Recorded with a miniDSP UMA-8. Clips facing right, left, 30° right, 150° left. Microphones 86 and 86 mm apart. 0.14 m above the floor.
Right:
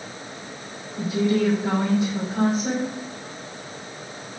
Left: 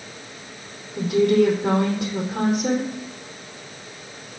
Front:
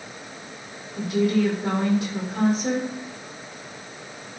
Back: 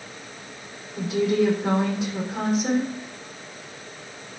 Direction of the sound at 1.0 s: 60° left.